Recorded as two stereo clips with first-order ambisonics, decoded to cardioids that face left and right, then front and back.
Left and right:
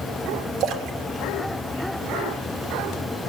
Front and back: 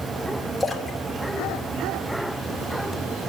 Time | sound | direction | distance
0.6 | a splash | 85° right | 1.4 m